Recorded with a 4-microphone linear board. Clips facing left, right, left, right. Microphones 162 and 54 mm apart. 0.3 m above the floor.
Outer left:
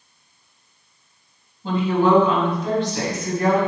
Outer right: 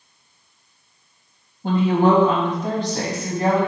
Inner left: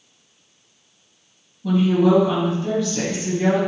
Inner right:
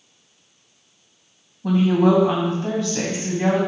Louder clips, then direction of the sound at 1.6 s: Outer right 1 dB, even; 55° right (ahead or behind).